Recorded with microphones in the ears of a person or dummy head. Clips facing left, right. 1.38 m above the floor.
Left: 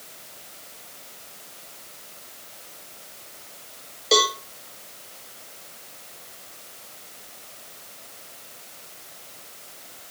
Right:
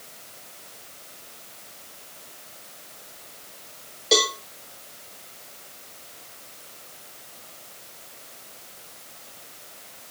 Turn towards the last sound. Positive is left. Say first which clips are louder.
# left 1 dB
turn(degrees=0)  # may be behind; listen again after turning